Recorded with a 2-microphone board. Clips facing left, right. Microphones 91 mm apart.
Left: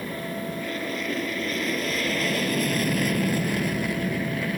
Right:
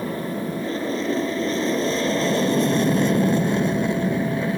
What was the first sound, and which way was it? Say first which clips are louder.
An aircraft: right 5 dB; 30° right (ahead or behind).